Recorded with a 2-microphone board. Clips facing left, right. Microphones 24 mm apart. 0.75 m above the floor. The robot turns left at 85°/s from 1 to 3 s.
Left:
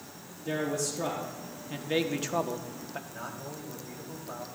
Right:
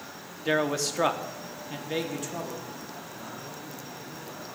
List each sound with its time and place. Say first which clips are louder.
0.5 s a man speaking: right 5 dB; 115° right, 1.1 m; by 3.0 s 80° left, 1.1 m
3.1 s a man speaking: even; 45° left (ahead or behind), 3.5 m